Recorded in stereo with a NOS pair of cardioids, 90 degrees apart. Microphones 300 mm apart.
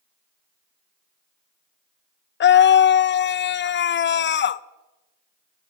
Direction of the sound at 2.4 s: 40° left.